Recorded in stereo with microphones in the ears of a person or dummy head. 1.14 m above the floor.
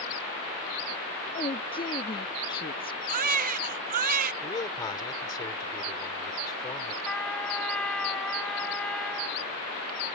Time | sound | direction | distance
1.3 | a woman speaking | 25° left (ahead or behind) | ?
3.1 | a baby crying | 45° right (ahead or behind) | ?
4.4 | a man speaking | 20° left (ahead or behind) | ?
7.0 | a trumpet | 5° left (ahead or behind) | ?